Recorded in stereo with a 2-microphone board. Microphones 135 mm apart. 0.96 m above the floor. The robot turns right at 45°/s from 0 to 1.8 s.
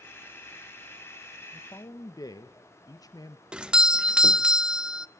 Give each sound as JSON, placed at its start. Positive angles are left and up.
{"t": 1.5, "sound": "a man speaking", "side_deg": 20, "distance_m": 0.7}
{"t": 3.5, "sound": "a doorbell", "side_deg": -5, "distance_m": 0.6}